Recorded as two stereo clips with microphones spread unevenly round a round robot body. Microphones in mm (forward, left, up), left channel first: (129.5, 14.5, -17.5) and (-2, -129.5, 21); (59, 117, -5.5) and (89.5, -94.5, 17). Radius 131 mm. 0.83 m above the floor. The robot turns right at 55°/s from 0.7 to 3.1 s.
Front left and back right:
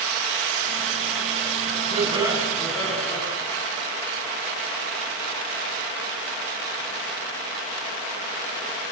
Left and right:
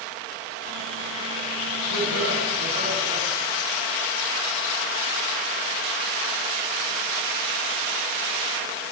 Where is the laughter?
80° right, 7 m; by 3.2 s 15° right, 7 m.